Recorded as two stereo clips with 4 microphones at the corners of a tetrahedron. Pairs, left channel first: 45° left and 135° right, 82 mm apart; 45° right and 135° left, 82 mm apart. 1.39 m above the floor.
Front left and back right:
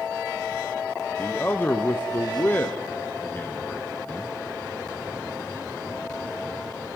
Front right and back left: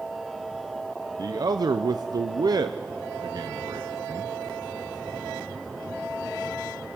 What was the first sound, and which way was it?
A man speaking, 110° left.